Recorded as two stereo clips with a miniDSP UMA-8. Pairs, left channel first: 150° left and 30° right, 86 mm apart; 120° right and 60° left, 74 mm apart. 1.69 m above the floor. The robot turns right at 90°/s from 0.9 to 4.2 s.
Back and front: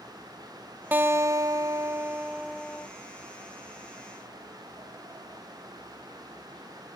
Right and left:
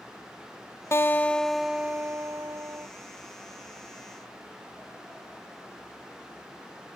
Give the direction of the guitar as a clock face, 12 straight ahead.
3 o'clock.